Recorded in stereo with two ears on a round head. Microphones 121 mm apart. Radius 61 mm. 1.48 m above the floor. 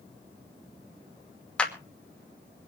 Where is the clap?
10° left (ahead or behind), 2.5 m.